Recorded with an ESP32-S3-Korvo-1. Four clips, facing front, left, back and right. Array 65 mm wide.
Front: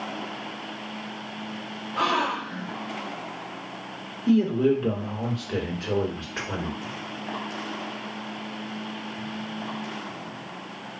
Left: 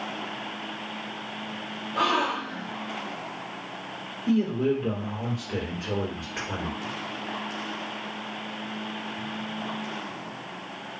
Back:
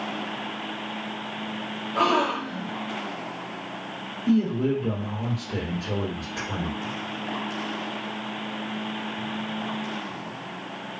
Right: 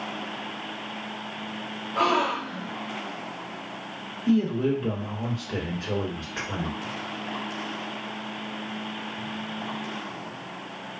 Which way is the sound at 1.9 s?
155° right.